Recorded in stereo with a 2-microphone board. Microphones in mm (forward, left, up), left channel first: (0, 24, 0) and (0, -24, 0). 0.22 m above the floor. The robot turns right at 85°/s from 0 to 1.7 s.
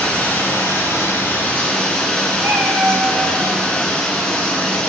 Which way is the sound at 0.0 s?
10° left.